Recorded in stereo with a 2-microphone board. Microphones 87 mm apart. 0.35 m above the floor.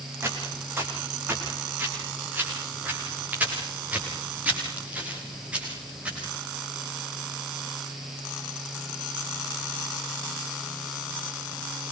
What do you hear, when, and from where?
0.2 s footsteps: 25° right (ahead or behind), 8.5 m; by 6.3 s 15° right (ahead or behind), 11 m